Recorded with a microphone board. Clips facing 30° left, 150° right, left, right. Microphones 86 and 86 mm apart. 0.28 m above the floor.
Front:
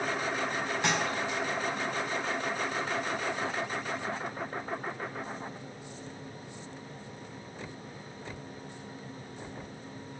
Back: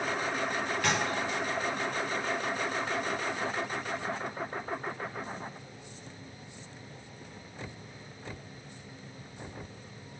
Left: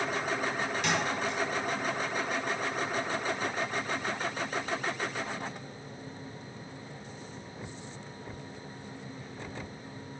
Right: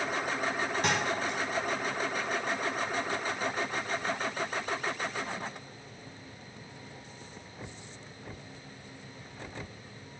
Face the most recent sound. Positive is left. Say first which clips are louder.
# even, even
turn(degrees=-40)